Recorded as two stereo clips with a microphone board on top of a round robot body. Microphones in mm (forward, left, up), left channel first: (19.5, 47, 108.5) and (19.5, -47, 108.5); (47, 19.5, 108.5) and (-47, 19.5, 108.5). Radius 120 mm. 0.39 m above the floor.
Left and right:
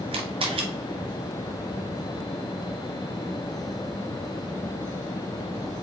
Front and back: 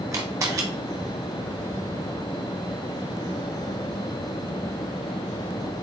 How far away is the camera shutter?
About 0.7 m.